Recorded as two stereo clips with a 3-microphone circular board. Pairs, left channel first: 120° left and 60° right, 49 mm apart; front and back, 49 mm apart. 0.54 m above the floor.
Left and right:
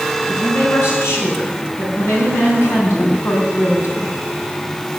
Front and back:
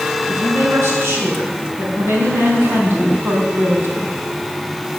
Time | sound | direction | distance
0.3 | a woman speaking | 145° left | 6 m